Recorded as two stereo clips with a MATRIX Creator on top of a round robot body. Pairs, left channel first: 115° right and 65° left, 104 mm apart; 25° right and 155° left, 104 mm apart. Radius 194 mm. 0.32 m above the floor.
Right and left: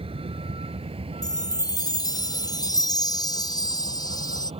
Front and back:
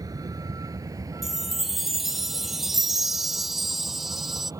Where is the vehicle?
100° left; by 4.6 s 95° left.